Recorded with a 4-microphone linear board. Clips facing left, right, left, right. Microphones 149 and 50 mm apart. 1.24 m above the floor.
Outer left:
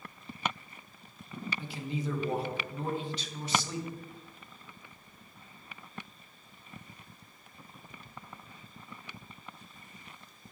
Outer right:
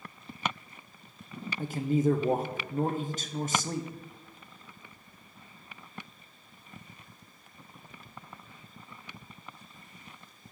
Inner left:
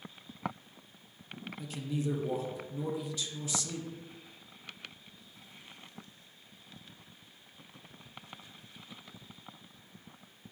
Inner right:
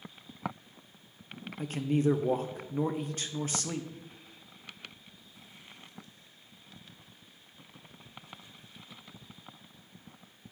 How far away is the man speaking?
About 0.7 m.